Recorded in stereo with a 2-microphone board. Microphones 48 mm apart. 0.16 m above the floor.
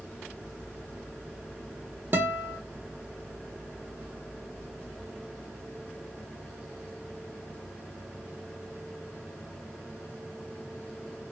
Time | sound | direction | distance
2.1 | a guitar | 50° right (ahead or behind) | 0.7 m